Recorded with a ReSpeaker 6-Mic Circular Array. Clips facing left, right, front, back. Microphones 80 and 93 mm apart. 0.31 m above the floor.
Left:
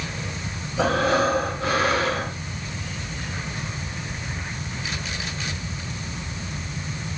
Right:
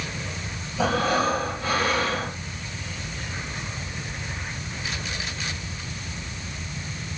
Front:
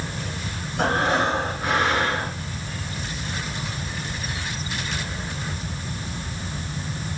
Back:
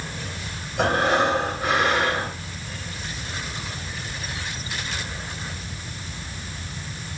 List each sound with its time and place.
0.8 s breathing: 90° left, 3.5 m